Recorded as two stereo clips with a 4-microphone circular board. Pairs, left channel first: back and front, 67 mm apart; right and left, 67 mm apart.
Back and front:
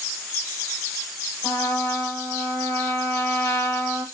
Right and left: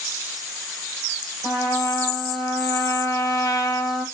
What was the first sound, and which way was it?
A trumpet, 130° right.